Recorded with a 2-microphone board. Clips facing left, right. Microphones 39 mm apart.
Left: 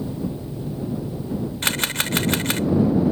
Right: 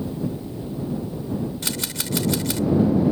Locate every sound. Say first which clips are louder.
1.6 s a camera shutter: left 6 dB; 55° left (ahead or behind)